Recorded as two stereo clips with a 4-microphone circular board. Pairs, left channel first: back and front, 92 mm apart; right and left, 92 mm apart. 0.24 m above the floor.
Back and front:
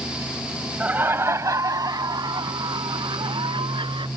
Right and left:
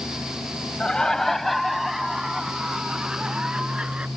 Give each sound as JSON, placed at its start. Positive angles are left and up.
{"t": 0.8, "sound": "laughter", "azimuth_deg": -30}